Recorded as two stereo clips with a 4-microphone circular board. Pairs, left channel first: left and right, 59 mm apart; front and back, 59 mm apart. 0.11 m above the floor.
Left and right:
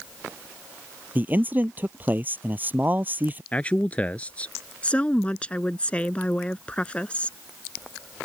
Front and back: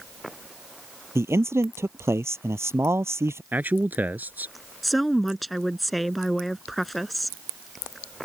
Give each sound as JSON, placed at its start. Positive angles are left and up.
{"t": 1.1, "sound": "a man speaking", "azimuth_deg": -145}
{"t": 3.5, "sound": "a man speaking", "azimuth_deg": 140}
{"t": 4.8, "sound": "a woman speaking", "azimuth_deg": 85}